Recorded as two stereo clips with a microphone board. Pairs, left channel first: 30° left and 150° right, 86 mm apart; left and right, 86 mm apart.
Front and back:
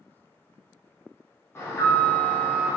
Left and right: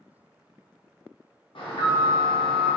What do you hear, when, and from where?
1.6 s an alarm: 90° left, 0.9 m